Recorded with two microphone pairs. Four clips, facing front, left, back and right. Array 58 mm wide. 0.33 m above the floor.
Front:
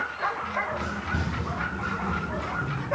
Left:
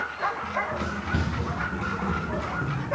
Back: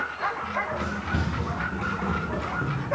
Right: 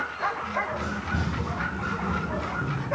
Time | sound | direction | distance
0.4 | running footsteps | 125° left | 2.0 m